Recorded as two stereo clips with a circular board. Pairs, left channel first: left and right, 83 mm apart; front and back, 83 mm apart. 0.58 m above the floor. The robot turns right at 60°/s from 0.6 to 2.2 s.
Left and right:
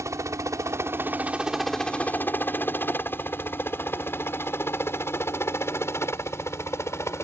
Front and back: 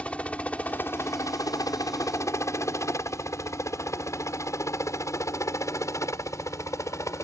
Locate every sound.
0.0 s a helicopter: 70° right; by 7.2 s 40° left